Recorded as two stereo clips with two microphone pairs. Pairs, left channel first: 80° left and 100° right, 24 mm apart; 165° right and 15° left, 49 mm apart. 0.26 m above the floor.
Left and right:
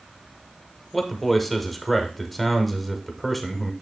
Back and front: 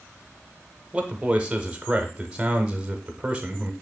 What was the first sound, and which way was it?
A man speaking, straight ahead.